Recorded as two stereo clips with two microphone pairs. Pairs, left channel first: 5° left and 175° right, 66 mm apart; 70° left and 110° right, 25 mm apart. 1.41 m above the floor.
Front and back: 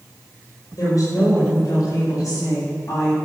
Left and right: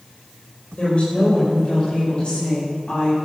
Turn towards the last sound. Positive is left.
turn(degrees=30)